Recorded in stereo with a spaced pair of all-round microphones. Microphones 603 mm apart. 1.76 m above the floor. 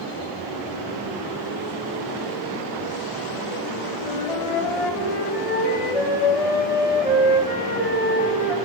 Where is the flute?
65° left (ahead or behind), 8 m.